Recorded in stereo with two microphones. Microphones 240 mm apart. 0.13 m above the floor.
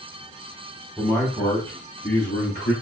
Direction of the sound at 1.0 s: 5° right (ahead or behind).